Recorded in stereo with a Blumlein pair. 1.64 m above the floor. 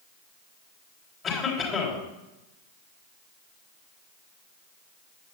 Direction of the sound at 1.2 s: 25° left.